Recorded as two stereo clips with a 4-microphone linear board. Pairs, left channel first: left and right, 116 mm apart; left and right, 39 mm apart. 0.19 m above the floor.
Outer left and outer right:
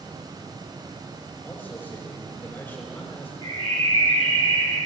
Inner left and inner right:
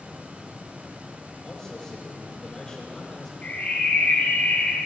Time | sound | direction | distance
1.4 | a man speaking | 20° left (ahead or behind) | 6 m
3.4 | a bird | 80° left | 4 m